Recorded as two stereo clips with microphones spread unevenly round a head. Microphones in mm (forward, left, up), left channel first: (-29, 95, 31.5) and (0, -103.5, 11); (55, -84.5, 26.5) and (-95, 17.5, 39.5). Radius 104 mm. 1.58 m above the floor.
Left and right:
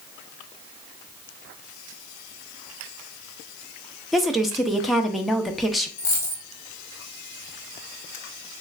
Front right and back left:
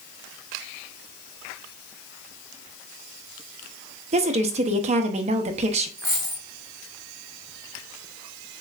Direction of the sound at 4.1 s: 175° right.